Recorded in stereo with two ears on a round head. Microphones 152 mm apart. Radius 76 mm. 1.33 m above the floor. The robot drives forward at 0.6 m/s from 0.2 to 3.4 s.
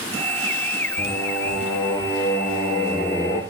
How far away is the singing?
About 5 m.